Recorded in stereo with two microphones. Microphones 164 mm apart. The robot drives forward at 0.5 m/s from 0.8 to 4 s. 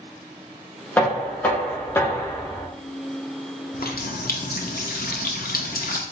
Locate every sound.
1.0 s knocking: 10° left (ahead or behind), 1.0 m; by 2.7 s 15° left (ahead or behind), 0.7 m
3.7 s a running tap: 65° left (ahead or behind), 0.5 m